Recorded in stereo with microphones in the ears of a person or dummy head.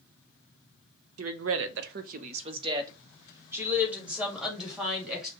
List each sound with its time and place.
1.2 s a woman speaking: 75° right (ahead or behind), 0.6 m; by 5.3 s centre (ahead or behind), 2 m